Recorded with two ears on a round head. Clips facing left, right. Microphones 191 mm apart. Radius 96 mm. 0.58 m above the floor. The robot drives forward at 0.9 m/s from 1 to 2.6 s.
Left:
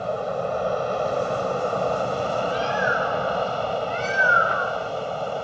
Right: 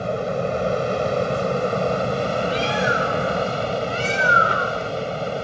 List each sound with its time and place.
0.0 s an aircraft: 30° right (ahead or behind)
2.5 s a bird: 40° right (ahead or behind)